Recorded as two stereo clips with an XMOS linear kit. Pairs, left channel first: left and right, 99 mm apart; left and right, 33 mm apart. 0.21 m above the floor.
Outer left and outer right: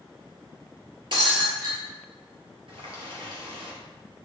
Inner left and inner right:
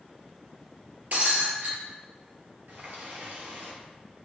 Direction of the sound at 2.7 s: 75° right (ahead or behind).